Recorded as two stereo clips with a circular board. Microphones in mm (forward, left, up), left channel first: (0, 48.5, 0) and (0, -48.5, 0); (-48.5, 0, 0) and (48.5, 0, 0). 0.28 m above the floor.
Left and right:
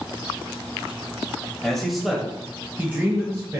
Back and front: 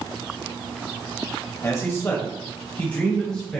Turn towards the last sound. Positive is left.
turn(degrees=-100)